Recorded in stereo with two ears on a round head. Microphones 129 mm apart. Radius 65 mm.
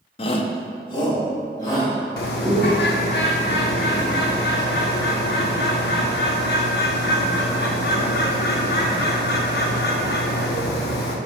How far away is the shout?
About 0.5 m.